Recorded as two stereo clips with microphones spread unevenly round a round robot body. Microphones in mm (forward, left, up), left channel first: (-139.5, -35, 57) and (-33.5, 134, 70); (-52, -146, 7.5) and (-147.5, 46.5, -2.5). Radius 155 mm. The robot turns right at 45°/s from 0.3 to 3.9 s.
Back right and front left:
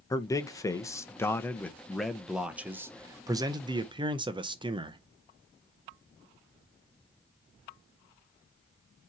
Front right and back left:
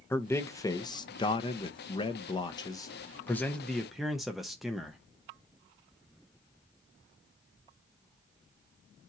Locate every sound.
0.1 s a man speaking: 125° right, 0.8 m; by 5.0 s 35° left, 0.8 m